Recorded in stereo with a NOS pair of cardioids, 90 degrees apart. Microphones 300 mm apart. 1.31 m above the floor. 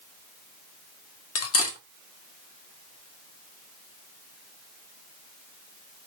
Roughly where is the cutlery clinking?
Ahead left.